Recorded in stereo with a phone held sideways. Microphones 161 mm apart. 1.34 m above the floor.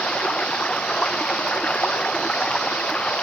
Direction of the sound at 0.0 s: 5° left (ahead or behind).